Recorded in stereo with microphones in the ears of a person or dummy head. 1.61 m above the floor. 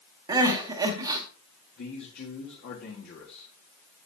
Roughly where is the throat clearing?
I don't hear throat clearing.